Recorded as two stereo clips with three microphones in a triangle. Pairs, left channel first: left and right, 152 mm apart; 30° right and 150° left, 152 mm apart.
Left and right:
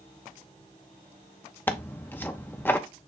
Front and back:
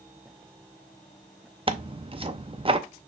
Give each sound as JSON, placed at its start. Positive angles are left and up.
{"t": 1.7, "sound": "tearing paper", "azimuth_deg": 155, "distance_m": 0.5}